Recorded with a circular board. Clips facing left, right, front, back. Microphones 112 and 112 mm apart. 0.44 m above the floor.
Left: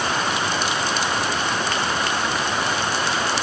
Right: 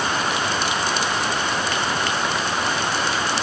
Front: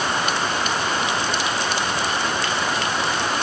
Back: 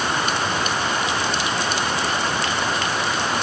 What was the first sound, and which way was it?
Only background noise.